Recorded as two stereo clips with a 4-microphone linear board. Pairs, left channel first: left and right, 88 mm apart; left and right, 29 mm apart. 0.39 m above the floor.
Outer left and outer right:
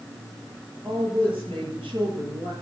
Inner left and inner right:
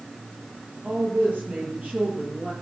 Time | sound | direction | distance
0.8 | a woman speaking | 75° right (ahead or behind) | 8.5 m